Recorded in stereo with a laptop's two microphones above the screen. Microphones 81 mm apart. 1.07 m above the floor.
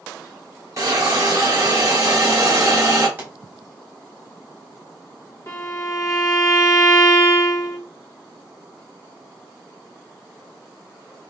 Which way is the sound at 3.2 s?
25° right (ahead or behind).